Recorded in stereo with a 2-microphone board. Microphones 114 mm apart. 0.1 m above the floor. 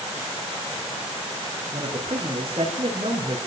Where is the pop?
I don't hear a pop.